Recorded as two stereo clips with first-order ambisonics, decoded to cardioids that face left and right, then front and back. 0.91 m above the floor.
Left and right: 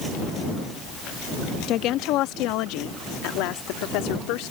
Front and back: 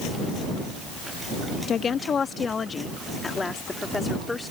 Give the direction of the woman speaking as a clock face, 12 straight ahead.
10 o'clock.